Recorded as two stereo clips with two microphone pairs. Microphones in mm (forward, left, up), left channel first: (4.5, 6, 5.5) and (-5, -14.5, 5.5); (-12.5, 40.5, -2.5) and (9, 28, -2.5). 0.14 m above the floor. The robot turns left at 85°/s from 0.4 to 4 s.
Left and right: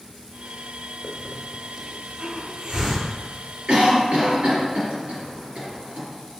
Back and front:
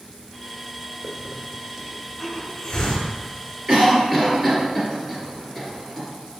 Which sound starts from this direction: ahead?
A hiss, at 1.0 s.